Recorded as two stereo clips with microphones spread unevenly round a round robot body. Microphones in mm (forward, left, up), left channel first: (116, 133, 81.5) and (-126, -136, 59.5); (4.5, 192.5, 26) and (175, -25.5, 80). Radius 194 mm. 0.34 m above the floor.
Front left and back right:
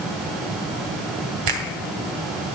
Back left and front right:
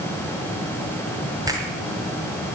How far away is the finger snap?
About 2 m.